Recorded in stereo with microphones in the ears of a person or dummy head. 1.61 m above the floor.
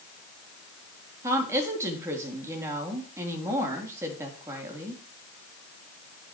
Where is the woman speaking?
10° right (ahead or behind), 3.5 m.